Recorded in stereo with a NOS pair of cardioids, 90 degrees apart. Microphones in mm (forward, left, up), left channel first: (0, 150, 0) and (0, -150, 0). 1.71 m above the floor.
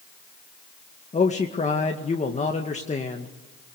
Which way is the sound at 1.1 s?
25° left.